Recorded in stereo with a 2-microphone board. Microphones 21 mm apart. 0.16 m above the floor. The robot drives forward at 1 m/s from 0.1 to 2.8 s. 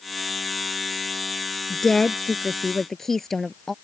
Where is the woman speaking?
20° left (ahead or behind); by 3.7 s 15° left (ahead or behind).